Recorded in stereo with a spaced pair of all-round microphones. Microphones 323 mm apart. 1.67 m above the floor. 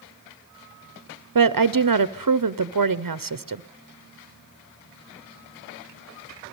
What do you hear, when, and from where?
1.4 s a woman speaking: 75° right (ahead or behind), 0.7 m